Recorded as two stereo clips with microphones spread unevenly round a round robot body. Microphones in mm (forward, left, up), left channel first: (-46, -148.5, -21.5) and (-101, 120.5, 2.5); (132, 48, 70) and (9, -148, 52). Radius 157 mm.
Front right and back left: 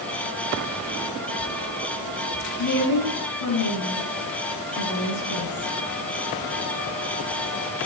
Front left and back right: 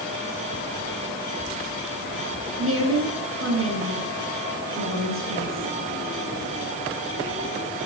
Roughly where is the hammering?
No hammering in this recording.